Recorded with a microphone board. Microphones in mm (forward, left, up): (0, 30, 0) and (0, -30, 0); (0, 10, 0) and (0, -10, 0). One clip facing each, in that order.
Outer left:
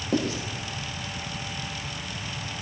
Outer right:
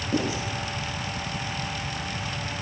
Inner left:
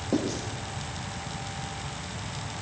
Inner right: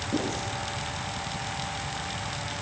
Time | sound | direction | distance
0.1 | writing | 70° left (ahead or behind) | 7 m